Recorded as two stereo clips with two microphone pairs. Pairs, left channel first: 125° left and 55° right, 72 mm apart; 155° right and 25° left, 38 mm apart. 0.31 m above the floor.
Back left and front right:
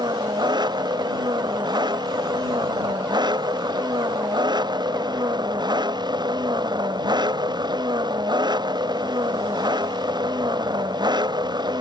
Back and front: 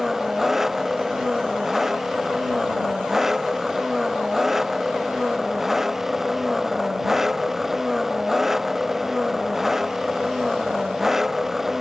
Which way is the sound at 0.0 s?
55° right.